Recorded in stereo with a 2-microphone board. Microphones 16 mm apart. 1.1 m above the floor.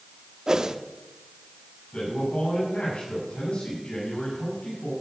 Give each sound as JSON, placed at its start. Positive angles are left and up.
{"t": 0.5, "sound": "a whoosh", "side_deg": -40, "distance_m": 0.7}
{"t": 1.9, "sound": "a man speaking", "side_deg": 85, "distance_m": 6.5}